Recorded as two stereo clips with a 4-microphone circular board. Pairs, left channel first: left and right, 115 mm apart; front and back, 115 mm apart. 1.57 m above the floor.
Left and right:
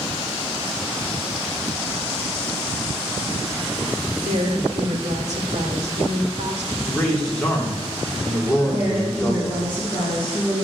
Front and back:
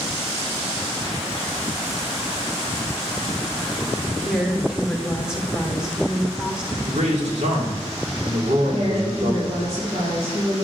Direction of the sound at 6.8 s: 175° left.